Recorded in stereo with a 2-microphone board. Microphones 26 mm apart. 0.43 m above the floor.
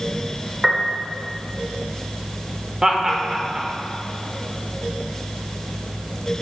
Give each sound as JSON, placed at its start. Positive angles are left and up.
{"t": 0.6, "sound": "a piano", "side_deg": -10, "distance_m": 1.1}
{"t": 2.8, "sound": "laughter", "side_deg": -20, "distance_m": 1.2}